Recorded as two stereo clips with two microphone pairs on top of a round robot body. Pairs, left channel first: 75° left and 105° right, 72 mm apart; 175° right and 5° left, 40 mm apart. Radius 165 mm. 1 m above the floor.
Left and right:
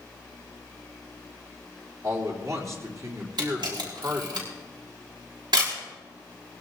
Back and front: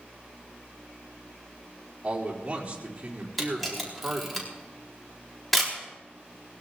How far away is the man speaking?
About 3.5 m.